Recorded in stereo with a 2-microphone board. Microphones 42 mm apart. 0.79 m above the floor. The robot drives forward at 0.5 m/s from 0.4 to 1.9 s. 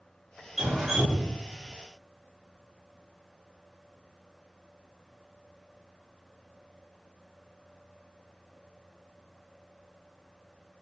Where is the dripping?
10° right (ahead or behind), 1.0 m.